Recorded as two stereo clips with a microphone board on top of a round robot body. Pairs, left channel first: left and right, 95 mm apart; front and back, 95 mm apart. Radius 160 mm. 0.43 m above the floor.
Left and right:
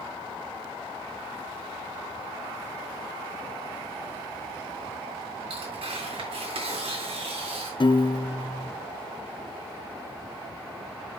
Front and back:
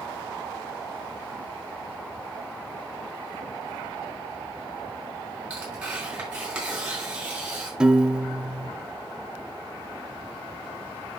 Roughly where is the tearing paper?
Right.